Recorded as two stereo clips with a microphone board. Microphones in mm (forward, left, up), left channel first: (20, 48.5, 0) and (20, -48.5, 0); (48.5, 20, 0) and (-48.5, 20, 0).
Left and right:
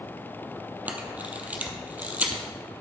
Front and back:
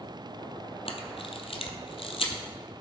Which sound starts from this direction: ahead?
A camera shutter, at 0.9 s.